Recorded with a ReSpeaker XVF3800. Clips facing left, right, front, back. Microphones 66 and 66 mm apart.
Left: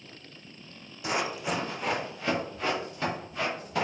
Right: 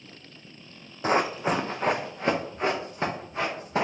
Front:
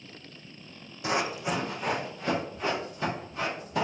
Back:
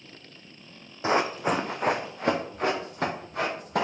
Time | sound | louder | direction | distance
1.0 | running footsteps | right 6 dB, back 5 dB | 125° right | 0.5 m